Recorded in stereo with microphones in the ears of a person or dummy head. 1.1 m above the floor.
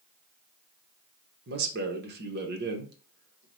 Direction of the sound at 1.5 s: 50° right (ahead or behind).